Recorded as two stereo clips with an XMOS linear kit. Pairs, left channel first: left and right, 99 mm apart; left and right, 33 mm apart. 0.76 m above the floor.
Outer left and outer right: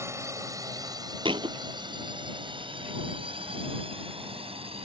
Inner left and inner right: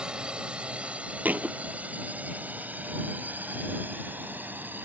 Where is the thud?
60° right (ahead or behind).